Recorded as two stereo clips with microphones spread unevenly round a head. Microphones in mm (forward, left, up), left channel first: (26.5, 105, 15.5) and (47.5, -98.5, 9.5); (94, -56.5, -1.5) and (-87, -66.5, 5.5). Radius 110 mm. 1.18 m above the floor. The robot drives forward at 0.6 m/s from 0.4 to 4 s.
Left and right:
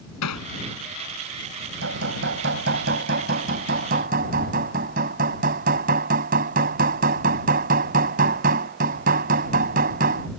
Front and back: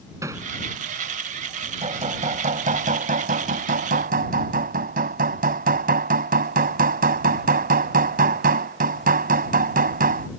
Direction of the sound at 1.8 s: 125° right.